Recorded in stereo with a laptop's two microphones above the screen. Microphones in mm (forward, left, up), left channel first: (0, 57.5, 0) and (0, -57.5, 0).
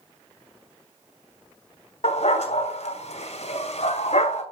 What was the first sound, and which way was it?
A dog barking, 70° left (ahead or behind).